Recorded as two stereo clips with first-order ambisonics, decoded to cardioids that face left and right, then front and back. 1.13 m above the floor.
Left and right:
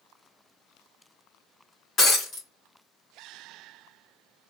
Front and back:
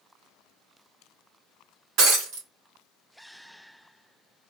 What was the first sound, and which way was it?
Breaking glass, 155° left.